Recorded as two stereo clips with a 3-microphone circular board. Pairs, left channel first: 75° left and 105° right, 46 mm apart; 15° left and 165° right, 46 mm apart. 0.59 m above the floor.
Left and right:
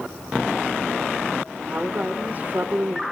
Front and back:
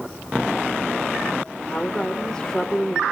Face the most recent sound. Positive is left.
turn(degrees=-55)